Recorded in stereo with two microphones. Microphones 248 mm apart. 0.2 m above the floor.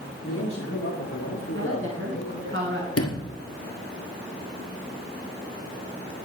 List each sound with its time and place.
0.2 s a man speaking: 70° left (ahead or behind), 4.5 m; by 2.5 s 40° left (ahead or behind), 2.0 m
1.6 s a woman speaking: 55° right (ahead or behind), 2.5 m
3.0 s a sliding door: 70° left (ahead or behind), 1.4 m